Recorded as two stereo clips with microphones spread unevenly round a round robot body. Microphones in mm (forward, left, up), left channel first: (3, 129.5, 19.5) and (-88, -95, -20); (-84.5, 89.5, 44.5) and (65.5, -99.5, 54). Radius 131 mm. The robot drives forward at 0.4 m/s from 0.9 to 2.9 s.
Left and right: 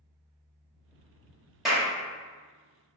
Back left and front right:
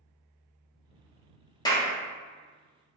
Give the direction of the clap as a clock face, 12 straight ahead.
6 o'clock.